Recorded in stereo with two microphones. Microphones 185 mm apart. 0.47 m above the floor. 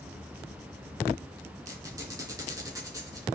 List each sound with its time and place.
1.6 s a squeak: 20° right (ahead or behind), 3 m